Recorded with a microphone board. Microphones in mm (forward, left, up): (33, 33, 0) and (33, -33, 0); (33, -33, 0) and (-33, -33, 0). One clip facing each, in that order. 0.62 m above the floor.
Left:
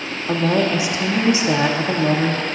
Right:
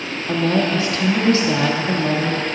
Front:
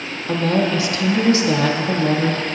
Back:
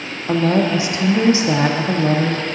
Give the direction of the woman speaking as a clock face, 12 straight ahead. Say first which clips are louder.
Even, back 2 dB; 7 o'clock.